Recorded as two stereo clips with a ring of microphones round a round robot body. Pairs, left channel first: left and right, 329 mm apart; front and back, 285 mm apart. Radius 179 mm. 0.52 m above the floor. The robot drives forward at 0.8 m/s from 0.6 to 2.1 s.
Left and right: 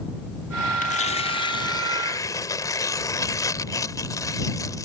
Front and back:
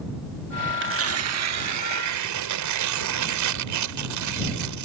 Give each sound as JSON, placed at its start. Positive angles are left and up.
{"t": 0.8, "sound": "tearing paper", "azimuth_deg": 150}